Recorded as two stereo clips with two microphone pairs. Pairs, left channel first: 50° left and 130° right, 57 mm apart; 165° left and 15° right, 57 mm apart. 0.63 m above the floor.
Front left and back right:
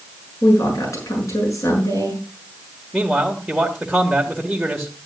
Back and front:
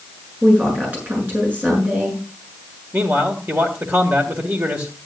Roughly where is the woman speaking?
Ahead left.